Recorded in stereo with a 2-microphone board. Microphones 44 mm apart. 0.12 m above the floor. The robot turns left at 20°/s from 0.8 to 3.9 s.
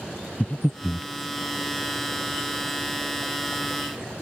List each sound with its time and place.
0.4 s breathing: 30° left (ahead or behind); by 1.1 s 25° left (ahead or behind)